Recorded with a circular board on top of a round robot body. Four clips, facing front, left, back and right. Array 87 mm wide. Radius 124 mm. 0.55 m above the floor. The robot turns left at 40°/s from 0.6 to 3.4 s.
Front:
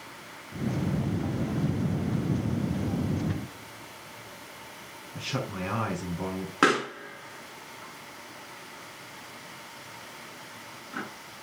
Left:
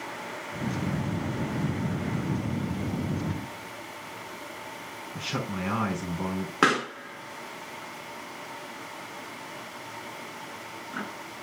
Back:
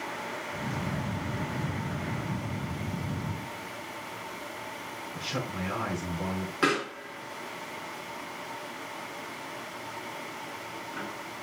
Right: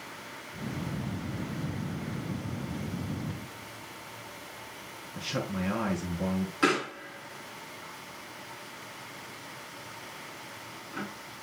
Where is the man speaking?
60° left, 5.5 m.